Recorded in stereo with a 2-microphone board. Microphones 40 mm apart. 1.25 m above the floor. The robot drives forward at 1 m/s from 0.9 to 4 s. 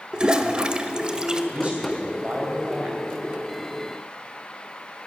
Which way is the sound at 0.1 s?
25° right (ahead or behind).